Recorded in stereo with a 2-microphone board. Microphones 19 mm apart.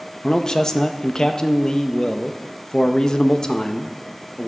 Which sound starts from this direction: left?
A man speaking, at 0.2 s.